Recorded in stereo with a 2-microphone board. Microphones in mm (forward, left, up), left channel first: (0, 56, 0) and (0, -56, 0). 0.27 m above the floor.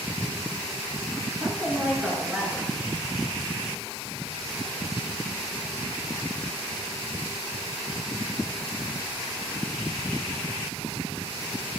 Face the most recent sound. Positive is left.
turn(degrees=-15)  # may be behind; listen again after turning